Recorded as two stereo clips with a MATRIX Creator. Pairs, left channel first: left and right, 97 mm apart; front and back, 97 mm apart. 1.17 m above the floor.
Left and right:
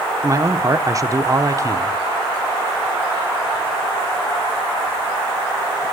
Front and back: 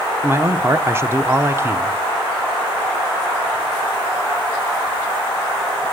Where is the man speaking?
130° right, 0.8 m.